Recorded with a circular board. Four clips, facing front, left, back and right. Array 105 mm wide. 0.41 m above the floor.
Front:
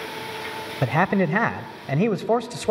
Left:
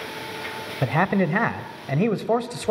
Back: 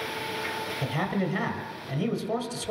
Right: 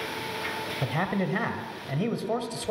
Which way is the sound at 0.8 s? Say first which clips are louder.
Left 8 dB, front 9 dB; 35° left.